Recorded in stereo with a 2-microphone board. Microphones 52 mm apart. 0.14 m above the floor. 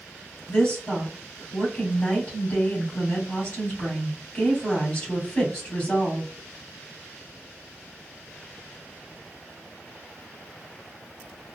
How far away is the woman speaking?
About 2.5 m.